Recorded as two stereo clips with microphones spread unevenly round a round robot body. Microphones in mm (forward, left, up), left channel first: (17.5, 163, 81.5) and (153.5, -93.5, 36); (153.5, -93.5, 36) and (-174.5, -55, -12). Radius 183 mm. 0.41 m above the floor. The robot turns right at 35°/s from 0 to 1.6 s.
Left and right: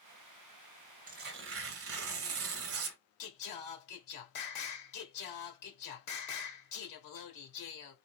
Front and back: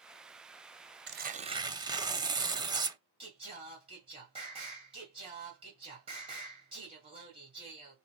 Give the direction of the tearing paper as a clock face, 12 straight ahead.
4 o'clock.